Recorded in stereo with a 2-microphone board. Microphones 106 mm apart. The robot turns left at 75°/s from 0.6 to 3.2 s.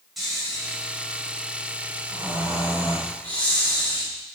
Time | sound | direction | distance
0.2 | snoring | straight ahead | 3.5 m